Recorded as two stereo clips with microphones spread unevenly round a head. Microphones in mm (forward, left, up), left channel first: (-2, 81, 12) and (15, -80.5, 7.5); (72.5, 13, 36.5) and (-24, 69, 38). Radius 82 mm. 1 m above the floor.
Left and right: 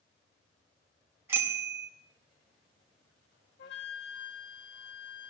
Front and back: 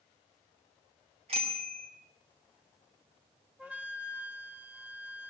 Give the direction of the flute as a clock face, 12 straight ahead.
10 o'clock.